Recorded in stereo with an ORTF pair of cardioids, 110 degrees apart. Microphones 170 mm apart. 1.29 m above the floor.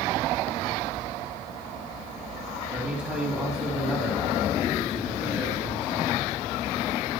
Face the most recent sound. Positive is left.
turn(degrees=-5)